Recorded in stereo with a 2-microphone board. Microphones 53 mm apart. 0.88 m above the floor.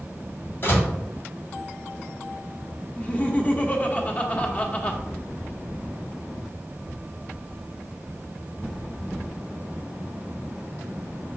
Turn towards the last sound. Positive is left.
turn(degrees=25)  # may be behind; listen again after turning